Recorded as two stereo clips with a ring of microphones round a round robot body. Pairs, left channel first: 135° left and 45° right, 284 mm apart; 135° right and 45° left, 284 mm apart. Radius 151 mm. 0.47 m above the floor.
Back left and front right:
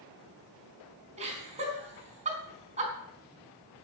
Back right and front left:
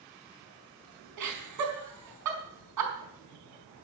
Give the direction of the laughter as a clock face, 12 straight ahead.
11 o'clock.